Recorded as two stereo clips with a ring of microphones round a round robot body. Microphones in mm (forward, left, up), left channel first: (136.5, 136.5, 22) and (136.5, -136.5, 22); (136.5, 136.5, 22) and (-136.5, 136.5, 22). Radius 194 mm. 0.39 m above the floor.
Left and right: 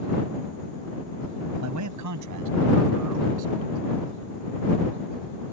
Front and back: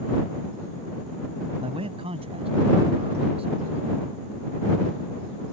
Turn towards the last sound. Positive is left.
turn(degrees=-105)